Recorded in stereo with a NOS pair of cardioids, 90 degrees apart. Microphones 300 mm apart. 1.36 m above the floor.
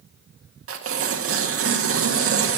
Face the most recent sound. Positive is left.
turn(degrees=-45)